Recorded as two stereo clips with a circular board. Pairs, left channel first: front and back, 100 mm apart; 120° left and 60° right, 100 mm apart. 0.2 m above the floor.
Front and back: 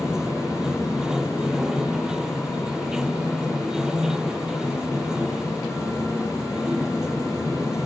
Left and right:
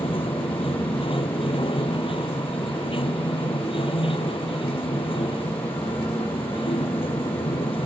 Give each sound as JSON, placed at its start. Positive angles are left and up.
{"t": 0.0, "sound": "running water", "azimuth_deg": 95}